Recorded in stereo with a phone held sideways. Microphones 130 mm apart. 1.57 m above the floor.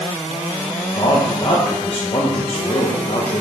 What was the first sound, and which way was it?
A man speaking, 45° left (ahead or behind).